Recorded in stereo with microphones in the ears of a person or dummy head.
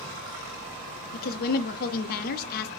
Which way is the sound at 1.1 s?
50° left (ahead or behind).